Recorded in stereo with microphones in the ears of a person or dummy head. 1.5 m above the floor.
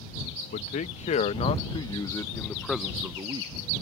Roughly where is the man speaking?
Left.